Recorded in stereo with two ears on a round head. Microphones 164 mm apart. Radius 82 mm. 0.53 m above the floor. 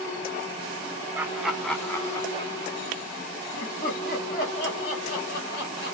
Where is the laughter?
10° right (ahead or behind), 0.9 m; by 6.0 s 65° left (ahead or behind), 2.5 m.